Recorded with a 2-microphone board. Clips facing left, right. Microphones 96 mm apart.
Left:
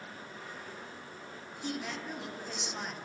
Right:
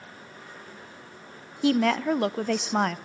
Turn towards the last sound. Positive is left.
turn(degrees=-80)